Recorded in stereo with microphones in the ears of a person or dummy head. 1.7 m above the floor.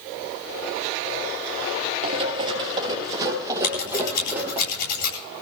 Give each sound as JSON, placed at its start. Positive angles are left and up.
{"t": 2.0, "sound": "running footsteps", "side_deg": -35, "distance_m": 2.5}
{"t": 3.6, "sound": "scissors", "side_deg": 55, "distance_m": 9.5}